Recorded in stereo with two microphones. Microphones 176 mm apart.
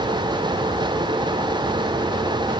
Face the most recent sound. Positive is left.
No sound to turn to.